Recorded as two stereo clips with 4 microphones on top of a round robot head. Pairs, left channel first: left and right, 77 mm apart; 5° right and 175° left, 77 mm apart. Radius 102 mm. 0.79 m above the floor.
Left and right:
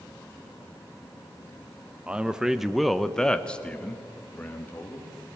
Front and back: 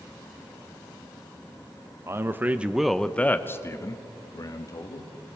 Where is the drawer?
I don't hear a drawer.